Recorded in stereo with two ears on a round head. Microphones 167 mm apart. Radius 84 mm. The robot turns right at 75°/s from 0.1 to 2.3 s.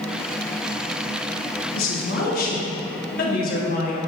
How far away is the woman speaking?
About 1.5 m.